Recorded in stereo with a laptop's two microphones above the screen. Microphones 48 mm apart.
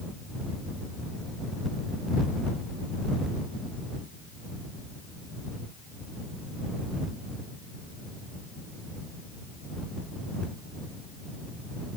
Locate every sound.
Only background noise.